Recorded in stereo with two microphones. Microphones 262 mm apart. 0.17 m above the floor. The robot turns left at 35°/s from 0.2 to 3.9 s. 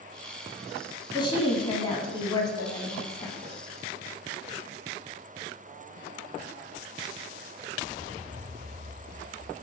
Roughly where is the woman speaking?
Centre.